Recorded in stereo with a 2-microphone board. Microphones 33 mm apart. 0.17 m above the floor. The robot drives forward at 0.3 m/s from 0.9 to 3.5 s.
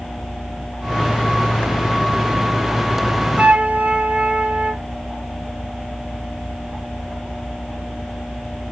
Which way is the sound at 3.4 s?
45° right (ahead or behind).